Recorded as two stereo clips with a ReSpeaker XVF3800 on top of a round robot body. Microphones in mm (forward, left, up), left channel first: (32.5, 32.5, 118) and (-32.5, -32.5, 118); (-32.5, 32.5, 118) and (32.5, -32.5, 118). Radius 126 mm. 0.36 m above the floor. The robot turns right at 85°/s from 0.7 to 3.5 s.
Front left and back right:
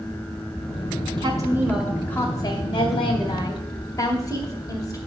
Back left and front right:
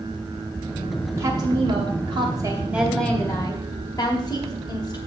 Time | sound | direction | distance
1.2 | a woman speaking | 110° right | 2.5 m